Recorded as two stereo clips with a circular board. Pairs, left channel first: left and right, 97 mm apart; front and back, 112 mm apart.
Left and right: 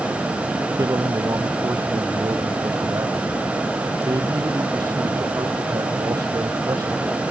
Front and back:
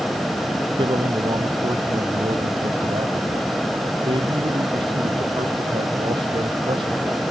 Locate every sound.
0.8 s a man speaking: 140° right